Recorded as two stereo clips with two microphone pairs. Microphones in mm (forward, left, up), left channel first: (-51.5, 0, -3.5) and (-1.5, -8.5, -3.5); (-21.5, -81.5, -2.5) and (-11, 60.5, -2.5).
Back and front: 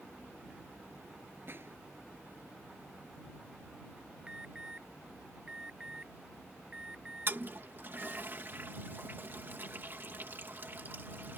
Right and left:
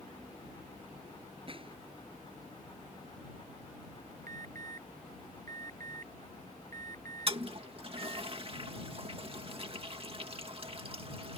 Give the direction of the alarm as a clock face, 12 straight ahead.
10 o'clock.